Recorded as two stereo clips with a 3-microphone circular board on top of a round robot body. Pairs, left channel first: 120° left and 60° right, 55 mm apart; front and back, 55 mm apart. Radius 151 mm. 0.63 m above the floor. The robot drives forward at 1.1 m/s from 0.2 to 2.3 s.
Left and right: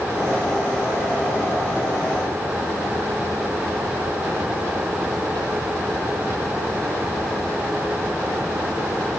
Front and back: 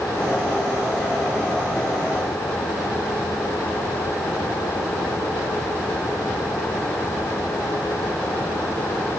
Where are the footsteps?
I don't hear footsteps.